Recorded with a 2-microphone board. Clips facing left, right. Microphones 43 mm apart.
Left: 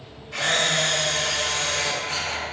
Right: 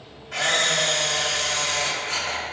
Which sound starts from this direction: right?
A camera shutter, at 0.3 s.